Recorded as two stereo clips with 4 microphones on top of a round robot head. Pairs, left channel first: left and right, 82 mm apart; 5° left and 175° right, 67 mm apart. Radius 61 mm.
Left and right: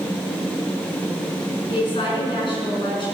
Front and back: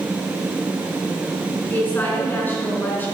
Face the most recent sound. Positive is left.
turn(degrees=70)